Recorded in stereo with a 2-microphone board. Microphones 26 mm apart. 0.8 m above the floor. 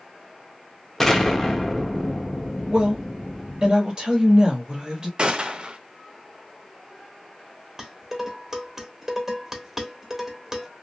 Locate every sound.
1.0 s an explosion: 10° left (ahead or behind), 0.7 m
2.7 s a woman speaking: 35° right (ahead or behind), 1.1 m
5.2 s a gunshot: 35° right (ahead or behind), 0.5 m
7.8 s dishes clattering: 15° right (ahead or behind), 1.1 m